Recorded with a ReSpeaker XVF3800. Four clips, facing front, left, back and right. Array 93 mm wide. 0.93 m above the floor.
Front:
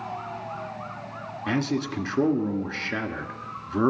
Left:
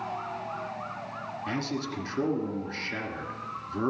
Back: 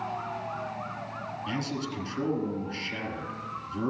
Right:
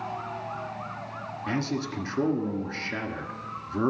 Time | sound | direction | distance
1.5 | a man speaking | 10° right | 1.6 m